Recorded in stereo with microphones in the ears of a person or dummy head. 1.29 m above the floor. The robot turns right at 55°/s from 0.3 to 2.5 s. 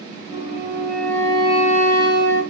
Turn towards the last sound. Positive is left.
turn(degrees=85)